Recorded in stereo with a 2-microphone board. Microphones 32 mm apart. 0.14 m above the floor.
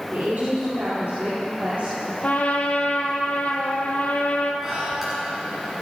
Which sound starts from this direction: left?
A trumpet, at 2.2 s.